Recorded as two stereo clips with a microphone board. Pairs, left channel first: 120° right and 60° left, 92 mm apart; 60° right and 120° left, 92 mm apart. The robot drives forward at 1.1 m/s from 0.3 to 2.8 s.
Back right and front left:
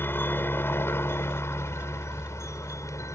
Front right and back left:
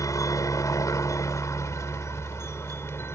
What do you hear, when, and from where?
0.0 s a helicopter: 70° right; by 3.2 s 95° right